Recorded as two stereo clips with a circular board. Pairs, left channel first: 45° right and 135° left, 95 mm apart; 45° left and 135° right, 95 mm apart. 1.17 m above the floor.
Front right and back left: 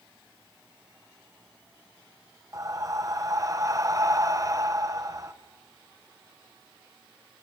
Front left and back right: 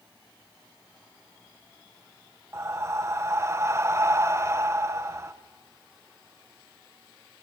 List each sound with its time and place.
2.5 s breathing: 175° left, 0.9 m